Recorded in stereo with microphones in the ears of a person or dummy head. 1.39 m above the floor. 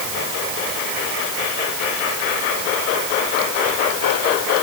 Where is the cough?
I don't hear a cough.